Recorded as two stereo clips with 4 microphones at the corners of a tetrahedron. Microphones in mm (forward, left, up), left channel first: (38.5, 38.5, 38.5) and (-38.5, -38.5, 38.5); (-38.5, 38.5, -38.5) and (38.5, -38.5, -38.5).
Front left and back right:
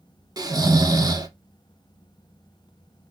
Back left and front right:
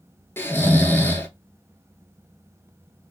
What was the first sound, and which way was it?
Snoring, 170° right.